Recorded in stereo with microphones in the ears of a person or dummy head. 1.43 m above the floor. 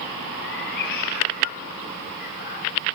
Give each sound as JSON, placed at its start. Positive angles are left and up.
{"t": 0.4, "sound": "a cat meowing", "side_deg": 55, "distance_m": 2.0}